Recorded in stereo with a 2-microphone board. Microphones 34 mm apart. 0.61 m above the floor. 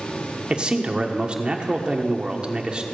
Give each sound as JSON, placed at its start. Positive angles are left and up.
{"t": 0.5, "sound": "a man speaking", "side_deg": -30, "distance_m": 1.2}